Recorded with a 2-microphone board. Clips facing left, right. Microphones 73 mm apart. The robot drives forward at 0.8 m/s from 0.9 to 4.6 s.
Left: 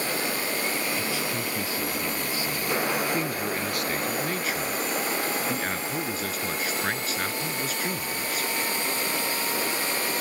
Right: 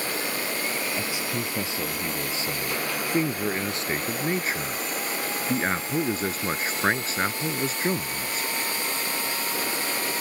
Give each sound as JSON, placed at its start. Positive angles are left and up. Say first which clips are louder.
{"t": 1.0, "sound": "a man speaking", "louder": "even", "side_deg": -20}